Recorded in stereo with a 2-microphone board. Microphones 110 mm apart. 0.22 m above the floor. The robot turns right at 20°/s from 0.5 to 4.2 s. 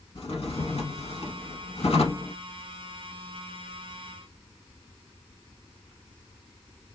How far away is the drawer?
About 0.7 m.